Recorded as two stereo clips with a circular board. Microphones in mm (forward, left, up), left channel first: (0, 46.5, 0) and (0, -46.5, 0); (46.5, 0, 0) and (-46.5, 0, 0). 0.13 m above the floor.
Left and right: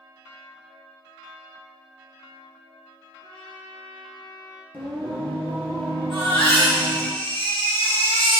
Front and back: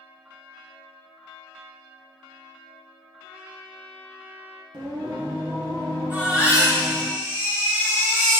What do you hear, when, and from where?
3.2 s a trumpet: 110° left, 2 m
4.7 s singing: 155° left, 2.5 m
6.1 s a baby crying: 110° left, 3 m